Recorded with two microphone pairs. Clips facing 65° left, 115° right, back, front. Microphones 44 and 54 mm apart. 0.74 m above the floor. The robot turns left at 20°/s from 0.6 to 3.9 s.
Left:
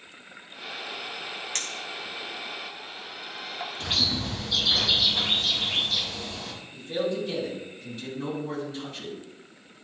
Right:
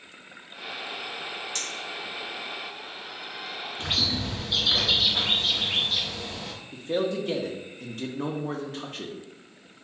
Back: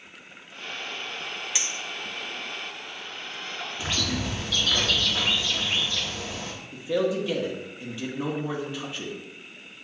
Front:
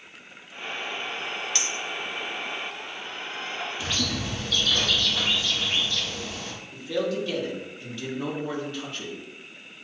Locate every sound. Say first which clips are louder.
1.6 s a clink: even, front 2 dB; 105° left, 0.6 m; by 3.7 s 60° left, 0.6 m
3.8 s a bird: even, back 3 dB; 140° right, 1.0 m
6.7 s a man speaking: right 2 dB, back 2 dB; 110° right, 1.1 m